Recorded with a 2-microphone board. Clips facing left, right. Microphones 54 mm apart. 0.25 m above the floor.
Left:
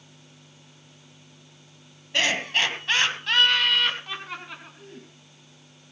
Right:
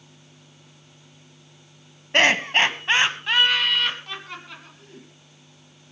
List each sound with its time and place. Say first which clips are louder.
2.1 s laughter: right 6 dB; 45° right (ahead or behind), 2.0 m; by 5.1 s 20° left (ahead or behind), 3 m